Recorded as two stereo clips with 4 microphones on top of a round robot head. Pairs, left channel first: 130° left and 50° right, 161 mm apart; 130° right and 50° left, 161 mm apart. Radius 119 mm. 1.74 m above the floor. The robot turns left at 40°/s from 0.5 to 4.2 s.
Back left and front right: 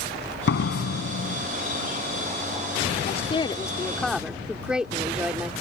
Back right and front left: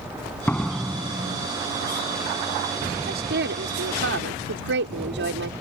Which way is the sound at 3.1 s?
85° left.